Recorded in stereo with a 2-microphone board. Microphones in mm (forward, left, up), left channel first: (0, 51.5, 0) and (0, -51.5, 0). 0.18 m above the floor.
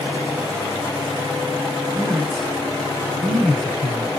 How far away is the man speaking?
About 1.2 m.